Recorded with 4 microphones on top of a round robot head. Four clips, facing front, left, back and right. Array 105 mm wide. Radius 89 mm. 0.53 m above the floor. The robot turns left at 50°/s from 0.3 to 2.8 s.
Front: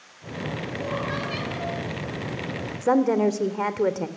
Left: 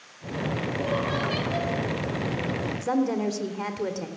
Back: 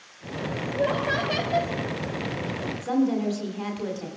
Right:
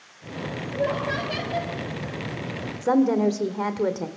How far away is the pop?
I don't hear a pop.